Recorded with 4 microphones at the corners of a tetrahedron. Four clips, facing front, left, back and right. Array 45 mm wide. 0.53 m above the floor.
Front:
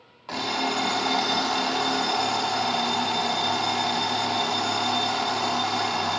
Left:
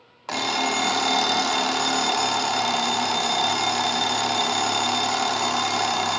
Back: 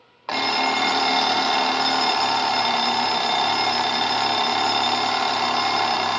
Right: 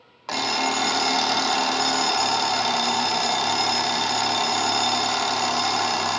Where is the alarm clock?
170° left, 0.5 m.